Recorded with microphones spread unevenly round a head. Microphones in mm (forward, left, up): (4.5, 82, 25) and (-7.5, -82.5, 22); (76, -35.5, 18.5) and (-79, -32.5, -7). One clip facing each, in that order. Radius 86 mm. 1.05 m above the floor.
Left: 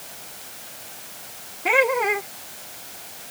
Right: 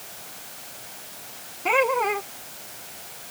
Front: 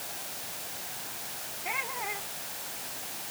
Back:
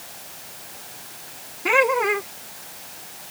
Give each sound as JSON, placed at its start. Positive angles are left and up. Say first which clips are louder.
{"t": 1.6, "sound": "laughter", "louder": "left 1 dB, back 19 dB", "azimuth_deg": 165}